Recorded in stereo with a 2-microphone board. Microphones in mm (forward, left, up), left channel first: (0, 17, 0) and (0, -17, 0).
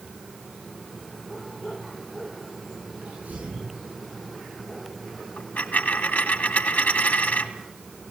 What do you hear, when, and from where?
3.0 s a sneeze: 50° right (ahead or behind), 10 m
5.4 s a dropped coin: 55° left (ahead or behind), 2 m